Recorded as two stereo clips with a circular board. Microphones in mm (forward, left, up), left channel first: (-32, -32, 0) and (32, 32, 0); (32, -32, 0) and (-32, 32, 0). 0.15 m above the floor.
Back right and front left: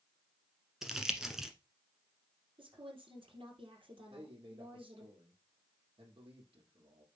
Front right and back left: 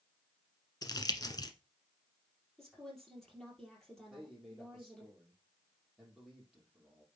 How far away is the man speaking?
About 4.5 m.